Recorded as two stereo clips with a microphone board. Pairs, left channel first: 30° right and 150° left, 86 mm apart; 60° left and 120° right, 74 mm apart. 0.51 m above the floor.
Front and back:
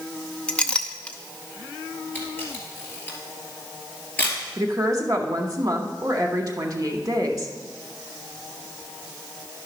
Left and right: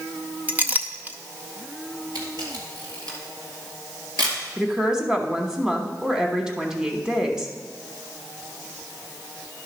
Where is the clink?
95° right, 0.6 m.